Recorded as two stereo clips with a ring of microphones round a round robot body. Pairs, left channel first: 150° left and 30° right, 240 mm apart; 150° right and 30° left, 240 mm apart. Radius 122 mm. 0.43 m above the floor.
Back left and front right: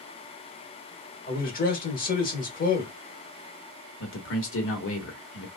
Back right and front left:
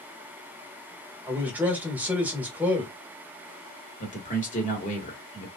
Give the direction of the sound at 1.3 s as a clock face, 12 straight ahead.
8 o'clock.